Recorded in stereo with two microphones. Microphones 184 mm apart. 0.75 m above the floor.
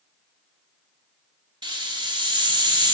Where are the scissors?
No scissors in this recording.